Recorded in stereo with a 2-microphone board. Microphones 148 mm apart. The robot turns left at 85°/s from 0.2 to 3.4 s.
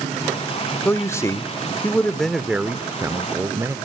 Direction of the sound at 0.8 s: 15° left (ahead or behind).